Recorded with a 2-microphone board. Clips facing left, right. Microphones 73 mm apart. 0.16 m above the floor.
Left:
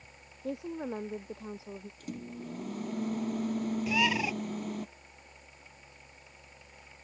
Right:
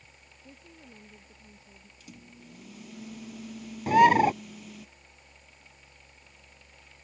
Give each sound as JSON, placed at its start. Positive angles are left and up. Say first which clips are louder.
{"t": 0.4, "sound": "a woman speaking", "louder": "left 17 dB", "side_deg": 75}
{"t": 2.0, "sound": "a microwave", "louder": "left 8 dB", "side_deg": 45}
{"t": 3.9, "sound": "a bird", "louder": "right 14 dB", "side_deg": -50}